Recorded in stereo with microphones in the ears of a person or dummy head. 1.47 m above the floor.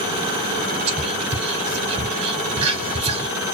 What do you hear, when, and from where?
0.9 s whispering: 35° right (ahead or behind), 0.6 m